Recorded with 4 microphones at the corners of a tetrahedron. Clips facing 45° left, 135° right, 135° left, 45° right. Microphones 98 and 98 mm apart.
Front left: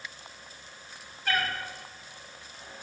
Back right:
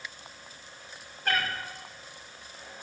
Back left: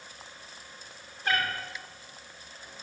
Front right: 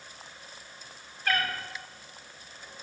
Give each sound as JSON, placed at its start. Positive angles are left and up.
{"t": 1.2, "sound": "a cat meowing", "azimuth_deg": -165, "distance_m": 2.5}